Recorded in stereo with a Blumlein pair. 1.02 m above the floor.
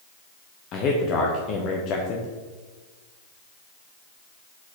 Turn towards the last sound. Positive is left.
turn(degrees=35)